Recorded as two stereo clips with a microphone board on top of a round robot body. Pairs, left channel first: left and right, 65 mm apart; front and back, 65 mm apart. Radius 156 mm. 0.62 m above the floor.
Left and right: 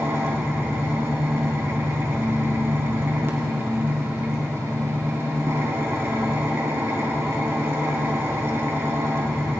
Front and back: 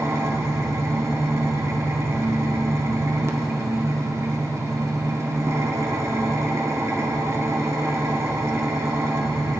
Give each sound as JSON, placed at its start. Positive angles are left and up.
{"t": 0.0, "sound": "an engine running", "azimuth_deg": -140, "distance_m": 1.7}